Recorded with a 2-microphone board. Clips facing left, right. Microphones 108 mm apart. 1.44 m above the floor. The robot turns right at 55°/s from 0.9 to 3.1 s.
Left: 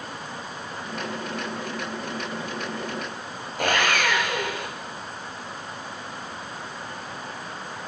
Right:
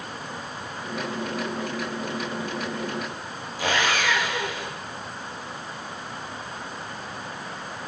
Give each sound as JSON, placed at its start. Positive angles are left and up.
{"t": 3.6, "sound": "sawing", "side_deg": 50, "distance_m": 7.5}